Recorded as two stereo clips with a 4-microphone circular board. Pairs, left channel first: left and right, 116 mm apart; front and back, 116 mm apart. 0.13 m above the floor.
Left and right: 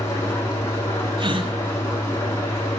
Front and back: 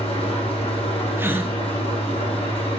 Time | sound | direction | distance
0.0 | an engine running | 25° left | 4 m
1.2 | a gasp | 115° right | 1.0 m